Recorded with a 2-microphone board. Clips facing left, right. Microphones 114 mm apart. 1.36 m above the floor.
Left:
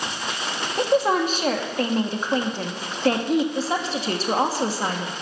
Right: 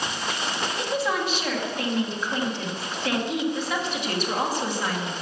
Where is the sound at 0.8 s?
40° left (ahead or behind), 1.9 m.